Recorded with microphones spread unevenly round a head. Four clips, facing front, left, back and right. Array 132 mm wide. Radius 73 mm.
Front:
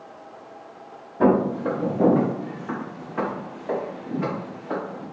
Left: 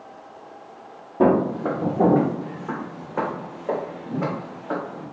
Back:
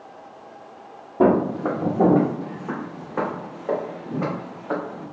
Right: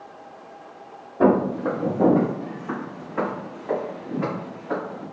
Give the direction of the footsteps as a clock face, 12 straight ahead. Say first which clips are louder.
Even, back 1 dB; 7 o'clock.